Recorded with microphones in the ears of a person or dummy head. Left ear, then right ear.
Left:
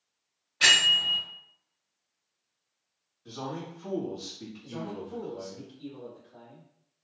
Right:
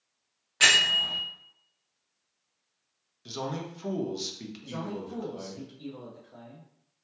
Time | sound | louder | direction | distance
0.6 | a bell | even | 40° right (ahead or behind) | 1.0 m
3.2 | a man speaking | right 3 dB | 70° right (ahead or behind) | 0.8 m
4.6 | a man speaking | right 1 dB | 60° right (ahead or behind) | 0.8 m